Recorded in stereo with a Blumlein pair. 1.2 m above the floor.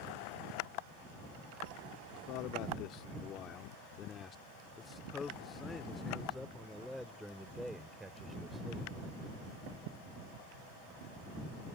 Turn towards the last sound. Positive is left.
turn(degrees=-5)